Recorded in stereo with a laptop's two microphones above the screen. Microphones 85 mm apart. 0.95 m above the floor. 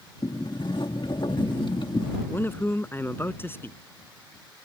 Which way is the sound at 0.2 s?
65° left (ahead or behind).